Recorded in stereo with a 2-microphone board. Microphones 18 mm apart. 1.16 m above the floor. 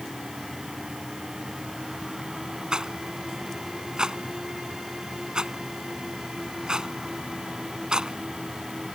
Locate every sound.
2.7 s a rattle: 50° right (ahead or behind)